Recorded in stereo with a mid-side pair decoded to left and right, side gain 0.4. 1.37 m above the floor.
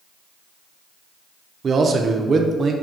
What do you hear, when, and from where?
1.6 s a man speaking: 50° right, 0.6 m